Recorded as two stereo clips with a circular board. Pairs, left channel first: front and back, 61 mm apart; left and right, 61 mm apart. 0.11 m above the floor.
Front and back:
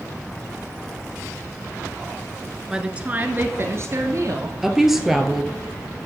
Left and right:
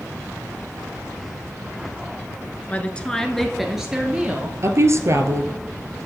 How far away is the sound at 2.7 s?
About 1.2 m.